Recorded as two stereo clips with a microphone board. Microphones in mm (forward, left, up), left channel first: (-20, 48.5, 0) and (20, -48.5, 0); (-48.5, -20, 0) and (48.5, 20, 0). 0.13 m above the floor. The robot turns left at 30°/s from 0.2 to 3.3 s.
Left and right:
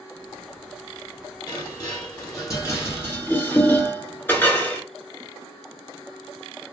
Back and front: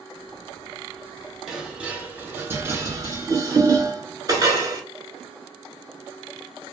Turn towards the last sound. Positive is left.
turn(degrees=50)